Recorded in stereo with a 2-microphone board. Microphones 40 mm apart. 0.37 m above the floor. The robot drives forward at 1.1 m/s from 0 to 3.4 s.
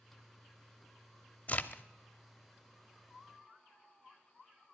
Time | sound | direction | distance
1.5 | a crack | 35° left (ahead or behind) | 0.7 m